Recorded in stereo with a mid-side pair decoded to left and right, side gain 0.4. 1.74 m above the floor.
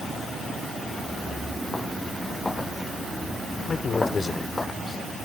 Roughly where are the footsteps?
Ahead left.